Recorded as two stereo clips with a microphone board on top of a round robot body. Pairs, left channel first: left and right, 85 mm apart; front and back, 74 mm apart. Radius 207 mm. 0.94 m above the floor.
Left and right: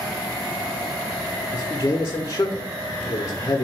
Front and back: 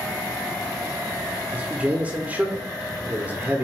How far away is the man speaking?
About 0.9 m.